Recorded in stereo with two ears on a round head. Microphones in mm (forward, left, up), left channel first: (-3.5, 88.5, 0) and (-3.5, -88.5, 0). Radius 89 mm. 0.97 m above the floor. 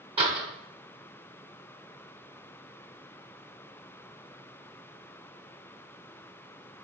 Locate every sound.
0.2 s a door slam: 30° right (ahead or behind), 2.5 m